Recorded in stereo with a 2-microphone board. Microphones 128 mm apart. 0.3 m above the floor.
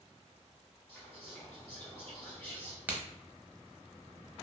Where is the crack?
15° right (ahead or behind), 0.6 m.